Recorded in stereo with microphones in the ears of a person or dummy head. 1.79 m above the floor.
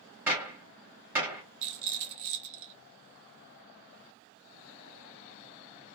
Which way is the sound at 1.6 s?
60° right (ahead or behind).